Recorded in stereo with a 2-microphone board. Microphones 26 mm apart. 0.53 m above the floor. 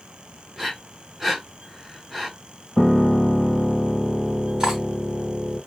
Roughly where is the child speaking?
No child speaking in this recording.